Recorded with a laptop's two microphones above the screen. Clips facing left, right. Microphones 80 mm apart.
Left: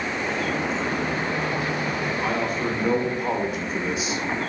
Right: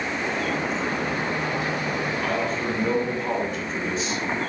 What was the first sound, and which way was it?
A man speaking, 10° left (ahead or behind).